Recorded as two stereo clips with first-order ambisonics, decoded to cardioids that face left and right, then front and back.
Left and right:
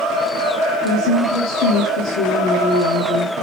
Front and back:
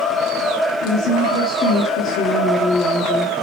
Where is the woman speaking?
55° left, 2 m.